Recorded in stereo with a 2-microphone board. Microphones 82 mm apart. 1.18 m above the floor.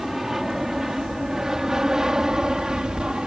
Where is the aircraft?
5° right (ahead or behind); by 3.3 s 10° right (ahead or behind).